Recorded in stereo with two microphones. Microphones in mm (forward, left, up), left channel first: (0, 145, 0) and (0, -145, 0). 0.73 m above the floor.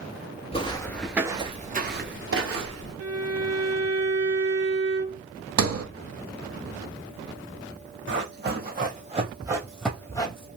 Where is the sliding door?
55° right (ahead or behind), 0.6 m.